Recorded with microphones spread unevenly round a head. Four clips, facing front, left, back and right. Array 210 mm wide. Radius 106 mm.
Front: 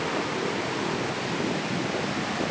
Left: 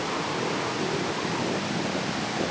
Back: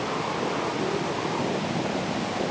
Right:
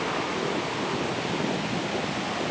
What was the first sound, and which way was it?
Only background noise.